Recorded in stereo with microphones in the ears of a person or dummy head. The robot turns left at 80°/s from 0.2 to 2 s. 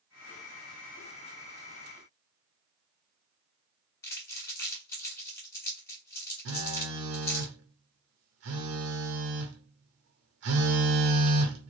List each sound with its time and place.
4.0 s crumpling: 20° left (ahead or behind), 1.3 m
6.5 s a phone buzzing: 60° right (ahead or behind), 0.8 m